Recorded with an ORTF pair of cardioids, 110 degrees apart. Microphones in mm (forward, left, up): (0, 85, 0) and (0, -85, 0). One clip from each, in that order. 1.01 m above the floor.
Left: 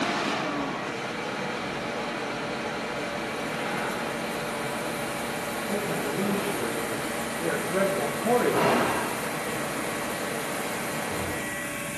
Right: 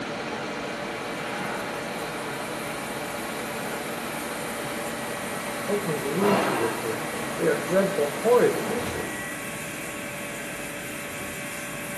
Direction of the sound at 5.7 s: 70° right.